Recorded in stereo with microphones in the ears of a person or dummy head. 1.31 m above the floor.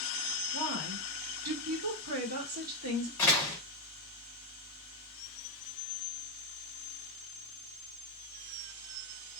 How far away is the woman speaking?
About 1.8 m.